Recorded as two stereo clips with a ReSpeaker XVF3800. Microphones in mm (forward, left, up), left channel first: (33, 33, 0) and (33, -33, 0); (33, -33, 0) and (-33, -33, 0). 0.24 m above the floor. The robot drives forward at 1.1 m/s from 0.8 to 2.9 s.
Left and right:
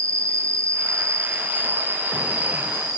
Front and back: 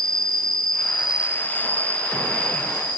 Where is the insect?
75° right, 1.1 m; by 3.0 s 160° right, 2.5 m.